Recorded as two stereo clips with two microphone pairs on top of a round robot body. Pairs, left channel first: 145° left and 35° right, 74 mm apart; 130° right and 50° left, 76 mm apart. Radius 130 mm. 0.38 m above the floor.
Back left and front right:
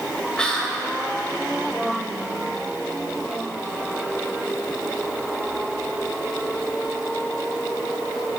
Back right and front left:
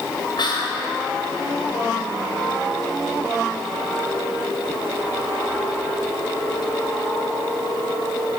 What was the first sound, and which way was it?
Whispering, 135° right.